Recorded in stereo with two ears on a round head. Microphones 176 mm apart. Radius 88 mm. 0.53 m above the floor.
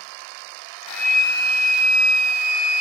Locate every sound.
0.9 s a flute: 10° left (ahead or behind), 0.5 m